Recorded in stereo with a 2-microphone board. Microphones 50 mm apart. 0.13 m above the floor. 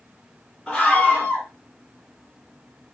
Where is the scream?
10° left (ahead or behind), 1.5 m.